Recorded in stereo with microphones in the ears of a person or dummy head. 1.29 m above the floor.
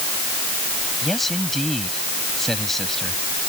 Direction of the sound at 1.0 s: Centre (ahead or behind).